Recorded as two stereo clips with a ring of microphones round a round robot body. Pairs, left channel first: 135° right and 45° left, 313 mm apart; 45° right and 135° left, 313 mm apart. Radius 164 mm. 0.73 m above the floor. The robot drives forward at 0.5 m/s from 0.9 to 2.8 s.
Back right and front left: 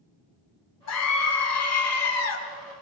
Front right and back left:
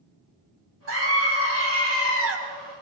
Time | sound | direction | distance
0.9 | a scream | 175° right | 4.5 m